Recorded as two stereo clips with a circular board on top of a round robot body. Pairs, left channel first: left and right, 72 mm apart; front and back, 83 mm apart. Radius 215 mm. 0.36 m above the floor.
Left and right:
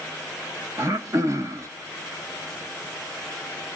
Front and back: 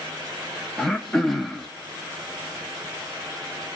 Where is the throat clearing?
85° right, 1.3 m.